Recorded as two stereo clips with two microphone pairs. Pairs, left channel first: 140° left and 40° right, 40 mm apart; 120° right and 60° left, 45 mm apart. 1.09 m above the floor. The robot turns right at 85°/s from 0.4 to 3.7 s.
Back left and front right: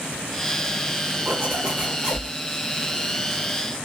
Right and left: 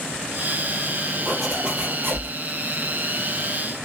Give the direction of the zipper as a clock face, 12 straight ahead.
1 o'clock.